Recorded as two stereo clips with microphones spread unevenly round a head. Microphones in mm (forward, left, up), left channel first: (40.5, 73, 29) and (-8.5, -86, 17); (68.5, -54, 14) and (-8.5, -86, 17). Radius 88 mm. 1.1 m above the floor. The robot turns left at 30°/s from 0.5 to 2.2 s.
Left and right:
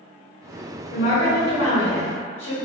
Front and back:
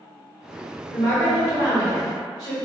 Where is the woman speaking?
100° left, 1.3 m; by 2.5 s 60° left, 1.3 m.